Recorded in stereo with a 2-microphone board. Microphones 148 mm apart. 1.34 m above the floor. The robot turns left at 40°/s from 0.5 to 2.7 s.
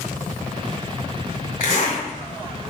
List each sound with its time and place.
1.6 s a zipper: 65° left (ahead or behind), 1.8 m; by 2.0 s 50° left (ahead or behind), 1.8 m